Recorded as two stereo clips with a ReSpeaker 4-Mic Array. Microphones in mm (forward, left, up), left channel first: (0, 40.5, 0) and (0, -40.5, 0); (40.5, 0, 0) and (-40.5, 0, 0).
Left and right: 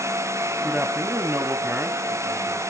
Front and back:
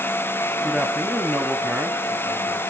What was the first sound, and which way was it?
A man speaking, 100° right.